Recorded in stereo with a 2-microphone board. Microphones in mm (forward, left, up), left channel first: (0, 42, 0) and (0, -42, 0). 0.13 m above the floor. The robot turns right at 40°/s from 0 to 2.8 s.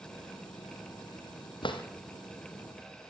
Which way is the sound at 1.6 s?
75° left (ahead or behind).